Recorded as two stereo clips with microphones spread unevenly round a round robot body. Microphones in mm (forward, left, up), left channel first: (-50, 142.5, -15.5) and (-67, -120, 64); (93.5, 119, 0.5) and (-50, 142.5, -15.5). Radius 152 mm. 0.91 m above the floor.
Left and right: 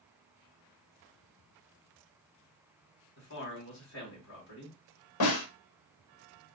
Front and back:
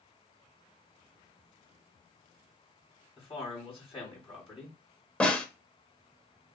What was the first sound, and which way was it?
A man speaking, 45° left.